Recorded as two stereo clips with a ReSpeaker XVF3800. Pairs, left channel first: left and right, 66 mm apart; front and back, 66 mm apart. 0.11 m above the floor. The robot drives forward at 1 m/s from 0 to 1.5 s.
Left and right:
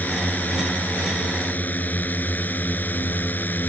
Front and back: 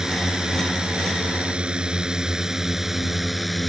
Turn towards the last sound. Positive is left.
turn(degrees=90)